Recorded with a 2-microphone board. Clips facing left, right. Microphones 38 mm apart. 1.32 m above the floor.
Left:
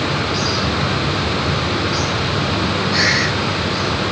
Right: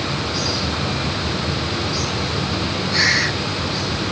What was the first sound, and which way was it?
Only background noise.